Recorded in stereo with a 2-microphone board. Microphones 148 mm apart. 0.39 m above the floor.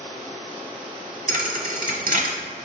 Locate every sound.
1.3 s a thud: 65° right (ahead or behind), 1.1 m